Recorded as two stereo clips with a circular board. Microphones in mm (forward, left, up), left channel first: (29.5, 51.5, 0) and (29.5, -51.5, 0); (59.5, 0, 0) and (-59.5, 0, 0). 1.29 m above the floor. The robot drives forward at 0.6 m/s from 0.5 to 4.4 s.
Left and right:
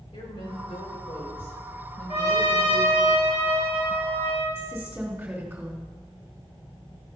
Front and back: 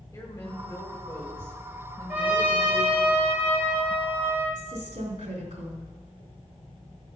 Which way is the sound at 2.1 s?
100° left.